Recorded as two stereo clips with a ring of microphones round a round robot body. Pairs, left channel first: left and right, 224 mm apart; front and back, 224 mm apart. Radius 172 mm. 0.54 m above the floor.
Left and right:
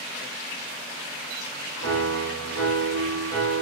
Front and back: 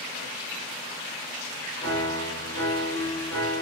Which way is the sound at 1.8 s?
65° right.